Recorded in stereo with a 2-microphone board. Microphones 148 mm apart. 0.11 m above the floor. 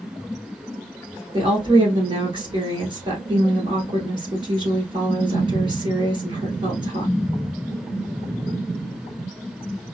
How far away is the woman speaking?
About 1.6 m.